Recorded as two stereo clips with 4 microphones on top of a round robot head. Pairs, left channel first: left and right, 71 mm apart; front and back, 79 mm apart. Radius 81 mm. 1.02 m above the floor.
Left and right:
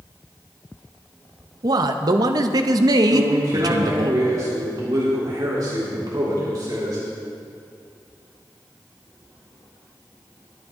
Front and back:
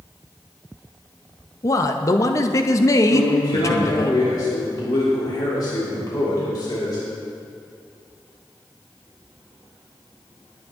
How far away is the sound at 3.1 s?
About 3.5 m.